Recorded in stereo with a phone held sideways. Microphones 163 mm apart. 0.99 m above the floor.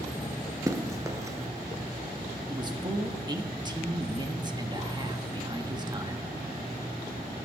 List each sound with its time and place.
0.7 s running footsteps: 20° right (ahead or behind), 1.0 m
2.5 s a man speaking: 25° right (ahead or behind), 1.2 m